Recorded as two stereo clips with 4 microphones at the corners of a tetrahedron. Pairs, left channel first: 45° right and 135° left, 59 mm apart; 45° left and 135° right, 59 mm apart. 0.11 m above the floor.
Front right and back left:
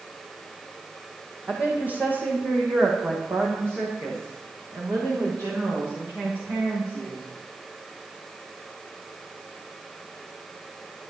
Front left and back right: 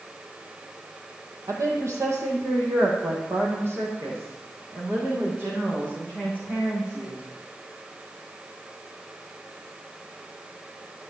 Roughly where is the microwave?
I don't hear a microwave.